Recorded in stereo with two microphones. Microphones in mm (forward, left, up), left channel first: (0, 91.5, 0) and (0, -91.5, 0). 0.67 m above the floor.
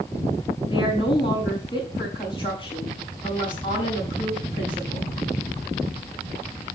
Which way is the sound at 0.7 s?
25° left (ahead or behind).